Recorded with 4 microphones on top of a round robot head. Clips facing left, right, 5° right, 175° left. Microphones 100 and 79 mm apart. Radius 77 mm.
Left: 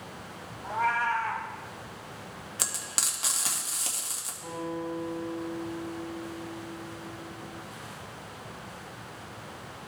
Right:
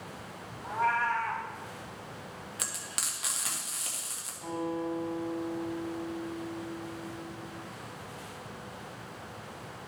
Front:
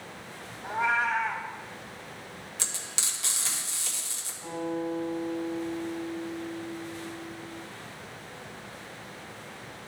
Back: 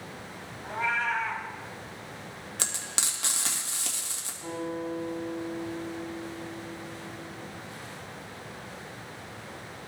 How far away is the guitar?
About 4.5 m.